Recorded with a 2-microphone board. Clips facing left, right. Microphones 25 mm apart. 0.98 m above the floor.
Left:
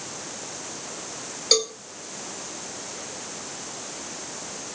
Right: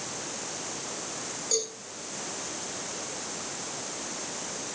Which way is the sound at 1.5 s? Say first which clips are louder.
Left 10 dB; 65° left (ahead or behind).